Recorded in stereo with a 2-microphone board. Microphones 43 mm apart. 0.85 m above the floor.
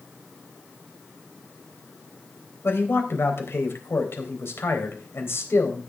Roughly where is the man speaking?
Left.